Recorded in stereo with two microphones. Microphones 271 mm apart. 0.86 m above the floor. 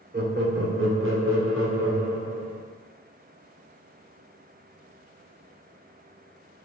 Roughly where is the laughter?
Right.